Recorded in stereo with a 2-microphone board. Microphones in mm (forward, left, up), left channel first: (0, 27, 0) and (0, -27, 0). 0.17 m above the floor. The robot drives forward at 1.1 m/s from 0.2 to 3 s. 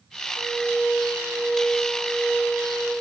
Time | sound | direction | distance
0.3 | a flute | 45° right (ahead or behind) | 3.5 m